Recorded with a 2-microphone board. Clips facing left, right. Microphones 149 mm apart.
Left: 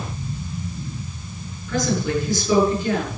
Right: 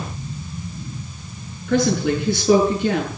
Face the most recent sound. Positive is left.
turn(degrees=-65)  # may be behind; listen again after turning